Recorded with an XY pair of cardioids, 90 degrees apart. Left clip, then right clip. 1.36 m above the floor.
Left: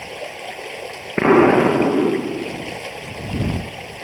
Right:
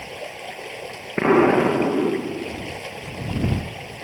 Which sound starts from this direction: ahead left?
An explosion, at 1.2 s.